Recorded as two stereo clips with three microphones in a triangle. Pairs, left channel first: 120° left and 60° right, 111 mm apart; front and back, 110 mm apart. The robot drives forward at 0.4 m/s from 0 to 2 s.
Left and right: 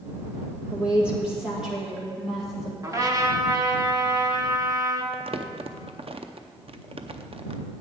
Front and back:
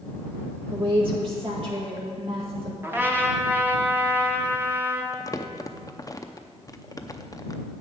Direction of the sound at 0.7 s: 140° right.